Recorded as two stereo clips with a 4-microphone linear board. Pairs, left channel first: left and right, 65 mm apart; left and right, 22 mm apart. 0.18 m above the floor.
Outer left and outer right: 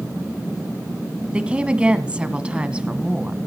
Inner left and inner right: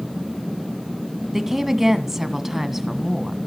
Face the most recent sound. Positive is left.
turn(degrees=-15)  # may be behind; listen again after turning